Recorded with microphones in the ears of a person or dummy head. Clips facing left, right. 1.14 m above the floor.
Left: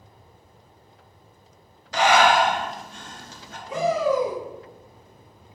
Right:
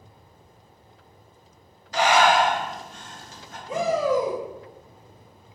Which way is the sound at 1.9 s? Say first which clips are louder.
Left 1 dB; 50° left (ahead or behind).